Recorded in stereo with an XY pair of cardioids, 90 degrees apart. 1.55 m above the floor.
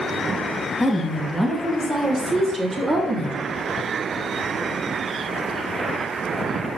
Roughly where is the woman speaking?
Ahead.